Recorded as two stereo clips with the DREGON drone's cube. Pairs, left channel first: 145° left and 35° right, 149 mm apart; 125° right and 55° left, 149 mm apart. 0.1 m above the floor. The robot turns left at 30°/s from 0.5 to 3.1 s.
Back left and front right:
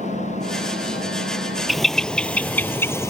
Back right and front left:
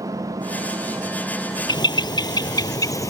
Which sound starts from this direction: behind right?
A bird, at 1.7 s.